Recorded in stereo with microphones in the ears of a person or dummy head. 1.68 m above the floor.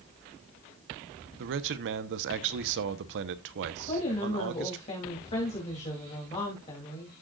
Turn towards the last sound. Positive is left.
turn(degrees=40)  # may be behind; listen again after turning